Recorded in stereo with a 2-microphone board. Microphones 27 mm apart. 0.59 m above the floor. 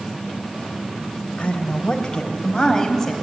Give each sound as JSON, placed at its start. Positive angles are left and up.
{"t": 1.4, "sound": "a woman speaking", "side_deg": 40, "distance_m": 3.5}